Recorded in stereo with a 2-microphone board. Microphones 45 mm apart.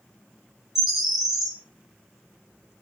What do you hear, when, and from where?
0.8 s a bird: 10° right (ahead or behind), 0.6 m